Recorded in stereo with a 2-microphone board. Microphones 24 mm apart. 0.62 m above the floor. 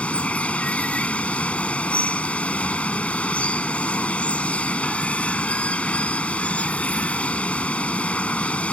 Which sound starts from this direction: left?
Running water, at 0.0 s.